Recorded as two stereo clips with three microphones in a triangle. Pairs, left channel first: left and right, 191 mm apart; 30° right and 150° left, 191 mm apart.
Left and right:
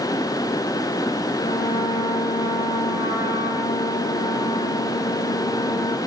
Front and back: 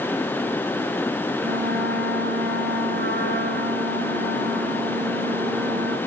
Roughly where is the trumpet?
Behind left.